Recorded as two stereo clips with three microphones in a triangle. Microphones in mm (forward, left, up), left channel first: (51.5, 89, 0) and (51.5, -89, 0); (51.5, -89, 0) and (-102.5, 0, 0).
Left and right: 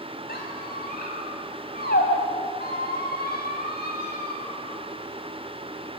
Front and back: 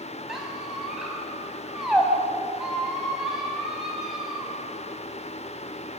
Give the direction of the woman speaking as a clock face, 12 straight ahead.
No woman speaking in this recording.